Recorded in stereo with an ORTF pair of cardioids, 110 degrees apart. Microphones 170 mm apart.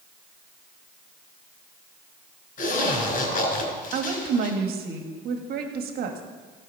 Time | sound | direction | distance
2.6 | a zipper | 55° left | 4.5 m
3.9 | a woman speaking | 65° right | 1.5 m